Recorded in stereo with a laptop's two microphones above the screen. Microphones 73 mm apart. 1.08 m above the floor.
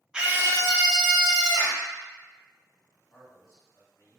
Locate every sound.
0.1 s a scream: 10° right (ahead or behind), 0.5 m; by 1.8 s 70° right (ahead or behind), 1.2 m
3.1 s a man speaking: 40° left (ahead or behind), 1.4 m